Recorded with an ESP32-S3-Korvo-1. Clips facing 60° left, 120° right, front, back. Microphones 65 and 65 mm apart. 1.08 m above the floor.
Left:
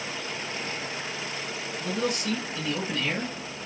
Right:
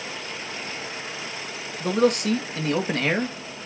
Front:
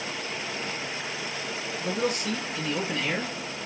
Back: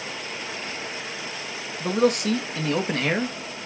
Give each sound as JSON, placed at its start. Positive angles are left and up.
{"t": 1.8, "sound": "a man speaking", "azimuth_deg": -155, "distance_m": 1.9}